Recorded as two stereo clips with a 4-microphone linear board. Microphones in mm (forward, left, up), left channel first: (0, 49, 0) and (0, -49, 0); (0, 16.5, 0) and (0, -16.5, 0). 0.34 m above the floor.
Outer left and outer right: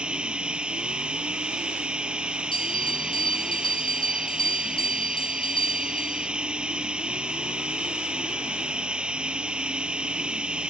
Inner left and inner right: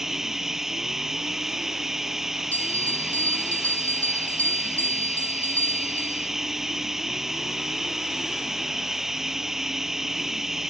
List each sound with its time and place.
0.0 s running water: 10° right (ahead or behind)
2.5 s a bell: 65° left (ahead or behind)